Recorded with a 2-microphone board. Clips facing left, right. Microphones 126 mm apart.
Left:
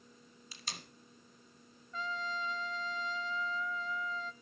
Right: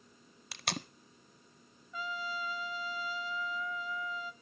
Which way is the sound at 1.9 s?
5° right (ahead or behind).